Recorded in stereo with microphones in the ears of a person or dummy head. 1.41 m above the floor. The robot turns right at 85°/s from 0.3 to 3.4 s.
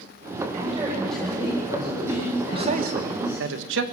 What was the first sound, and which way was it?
A man speaking, 45° right.